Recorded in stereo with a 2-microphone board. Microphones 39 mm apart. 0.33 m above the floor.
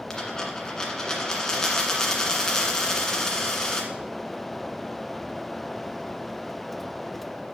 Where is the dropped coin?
15° left (ahead or behind), 1.7 m.